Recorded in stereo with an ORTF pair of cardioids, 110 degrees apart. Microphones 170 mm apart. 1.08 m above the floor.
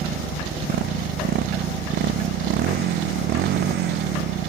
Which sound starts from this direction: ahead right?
A motorcycle, at 0.0 s.